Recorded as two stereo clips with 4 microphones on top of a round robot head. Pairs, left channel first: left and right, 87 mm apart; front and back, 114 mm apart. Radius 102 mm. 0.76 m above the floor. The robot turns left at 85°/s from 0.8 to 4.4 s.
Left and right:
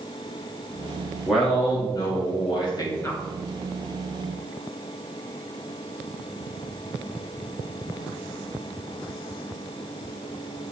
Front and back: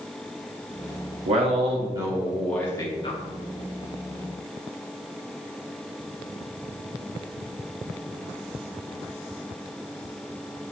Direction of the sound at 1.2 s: 170° right.